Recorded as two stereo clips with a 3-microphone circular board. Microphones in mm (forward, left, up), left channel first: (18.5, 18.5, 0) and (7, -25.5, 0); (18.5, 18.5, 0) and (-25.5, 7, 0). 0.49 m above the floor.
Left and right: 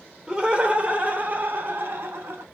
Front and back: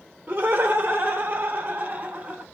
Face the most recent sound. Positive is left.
turn(degrees=-105)